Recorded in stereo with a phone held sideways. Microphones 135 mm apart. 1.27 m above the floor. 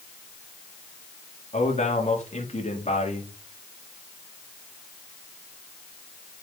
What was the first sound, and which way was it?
A man speaking, 55° left (ahead or behind).